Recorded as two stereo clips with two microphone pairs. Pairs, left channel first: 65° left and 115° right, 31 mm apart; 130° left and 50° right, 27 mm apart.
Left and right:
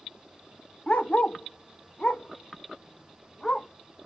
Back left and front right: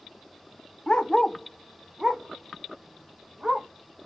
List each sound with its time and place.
0.9 s a dog barking: 90° left, 0.5 m; by 3.7 s 5° right, 1.4 m